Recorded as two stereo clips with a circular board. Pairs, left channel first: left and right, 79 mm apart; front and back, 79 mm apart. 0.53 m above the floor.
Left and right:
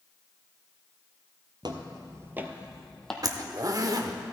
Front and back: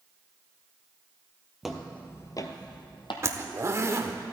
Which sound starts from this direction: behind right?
A zipper, at 3.2 s.